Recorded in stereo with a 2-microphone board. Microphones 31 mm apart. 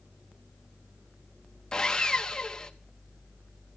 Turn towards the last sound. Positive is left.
turn(degrees=20)  # may be behind; listen again after turning